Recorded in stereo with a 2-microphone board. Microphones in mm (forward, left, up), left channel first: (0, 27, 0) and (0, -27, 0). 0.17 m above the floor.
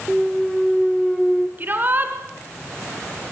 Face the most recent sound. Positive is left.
turn(degrees=-35)  # may be behind; listen again after turning